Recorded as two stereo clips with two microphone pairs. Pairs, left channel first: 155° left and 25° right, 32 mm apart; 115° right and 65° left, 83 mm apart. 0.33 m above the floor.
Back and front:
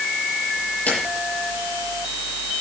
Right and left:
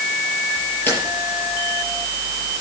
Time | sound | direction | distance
0.9 | a camera shutter | straight behind | 6 m